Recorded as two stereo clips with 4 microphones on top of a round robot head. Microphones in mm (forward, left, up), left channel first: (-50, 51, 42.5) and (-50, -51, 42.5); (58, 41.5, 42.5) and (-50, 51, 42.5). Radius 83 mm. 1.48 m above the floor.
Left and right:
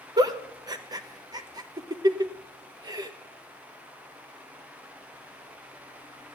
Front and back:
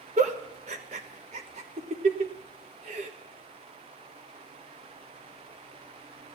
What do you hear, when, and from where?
0.2 s a giggle: 140° right, 1.3 m